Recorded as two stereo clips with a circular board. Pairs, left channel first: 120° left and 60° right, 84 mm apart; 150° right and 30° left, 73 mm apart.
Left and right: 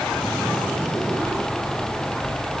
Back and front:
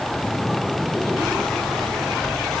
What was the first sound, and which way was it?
Only background noise.